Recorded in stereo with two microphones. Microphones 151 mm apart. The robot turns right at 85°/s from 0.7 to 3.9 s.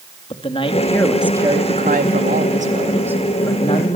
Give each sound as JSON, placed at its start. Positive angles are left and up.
{"t": 0.3, "sound": "a man speaking", "azimuth_deg": 145, "distance_m": 3.0}